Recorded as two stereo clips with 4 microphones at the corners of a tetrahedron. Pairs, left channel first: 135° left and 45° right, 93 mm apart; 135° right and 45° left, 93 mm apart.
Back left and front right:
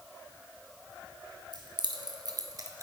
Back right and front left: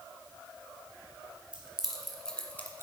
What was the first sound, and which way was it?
Keys jangling, 30° right.